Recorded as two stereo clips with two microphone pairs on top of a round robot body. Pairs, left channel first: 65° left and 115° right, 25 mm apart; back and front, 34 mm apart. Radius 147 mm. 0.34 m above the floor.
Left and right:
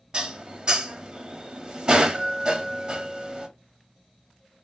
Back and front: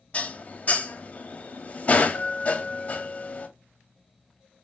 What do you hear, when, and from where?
0.1 s dishes clattering: 160° right, 0.8 m